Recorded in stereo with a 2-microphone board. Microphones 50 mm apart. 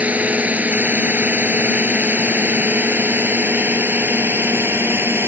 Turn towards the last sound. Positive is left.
turn(degrees=-45)  # may be behind; listen again after turning